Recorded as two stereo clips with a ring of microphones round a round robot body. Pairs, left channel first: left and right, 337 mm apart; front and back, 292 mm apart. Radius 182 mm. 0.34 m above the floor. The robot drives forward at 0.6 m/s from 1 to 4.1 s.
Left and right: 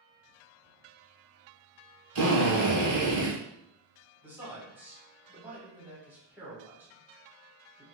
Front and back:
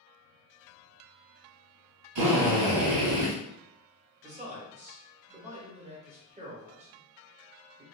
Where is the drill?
140° right, 1.1 m; by 3.3 s 155° right, 1.7 m.